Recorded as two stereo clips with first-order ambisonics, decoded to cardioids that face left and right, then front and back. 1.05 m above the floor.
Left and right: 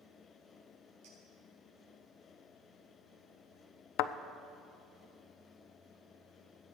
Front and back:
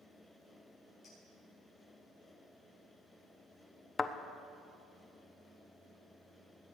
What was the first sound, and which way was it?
A clink, 85° right.